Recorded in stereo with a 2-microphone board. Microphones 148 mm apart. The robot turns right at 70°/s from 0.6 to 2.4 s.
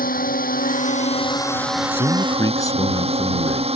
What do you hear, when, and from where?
0.0 s a drone: 100° left; by 3.8 s 135° right
1.9 s a man speaking: 110° left; by 3.7 s 145° left